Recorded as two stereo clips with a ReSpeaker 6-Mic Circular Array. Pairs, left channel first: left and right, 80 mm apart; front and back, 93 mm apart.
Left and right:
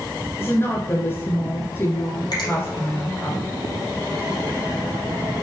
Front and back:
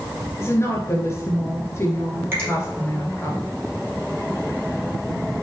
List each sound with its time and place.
0.4 s a woman speaking: 45° left, 1.5 m
2.3 s a finger snap: 115° left, 3 m